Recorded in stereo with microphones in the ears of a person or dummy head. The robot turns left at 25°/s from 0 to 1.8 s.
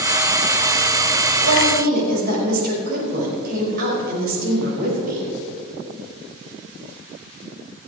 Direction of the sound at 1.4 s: 70° right (ahead or behind).